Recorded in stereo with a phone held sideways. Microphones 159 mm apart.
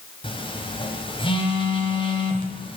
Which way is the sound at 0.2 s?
35° left (ahead or behind).